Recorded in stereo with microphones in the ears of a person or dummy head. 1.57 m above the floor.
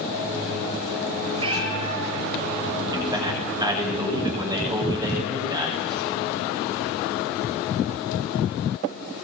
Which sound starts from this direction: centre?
A man speaking, at 2.9 s.